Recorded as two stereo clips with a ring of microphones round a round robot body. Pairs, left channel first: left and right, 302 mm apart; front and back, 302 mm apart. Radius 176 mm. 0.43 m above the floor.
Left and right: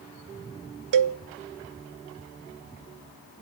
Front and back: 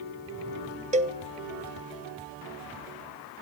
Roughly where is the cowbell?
Right.